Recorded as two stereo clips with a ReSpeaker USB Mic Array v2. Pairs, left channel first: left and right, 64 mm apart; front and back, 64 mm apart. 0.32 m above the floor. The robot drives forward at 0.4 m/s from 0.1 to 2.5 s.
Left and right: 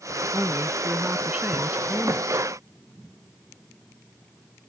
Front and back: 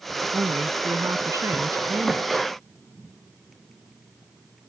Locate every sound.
0.3 s a woman speaking: 150° right; by 2.5 s 155° right